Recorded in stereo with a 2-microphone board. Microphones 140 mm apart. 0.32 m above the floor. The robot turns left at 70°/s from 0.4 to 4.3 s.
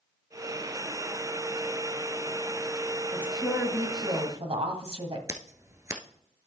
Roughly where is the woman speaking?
Ahead.